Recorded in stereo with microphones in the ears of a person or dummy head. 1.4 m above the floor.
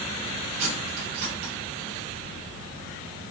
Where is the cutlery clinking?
35° right (ahead or behind), 7.5 m.